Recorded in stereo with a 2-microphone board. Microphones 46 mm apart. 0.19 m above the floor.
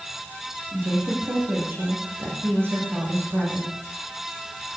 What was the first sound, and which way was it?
A woman speaking, 55° right (ahead or behind).